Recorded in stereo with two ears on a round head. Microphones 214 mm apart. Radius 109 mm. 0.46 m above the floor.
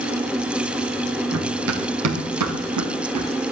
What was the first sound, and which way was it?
Running footsteps, 65° right (ahead or behind).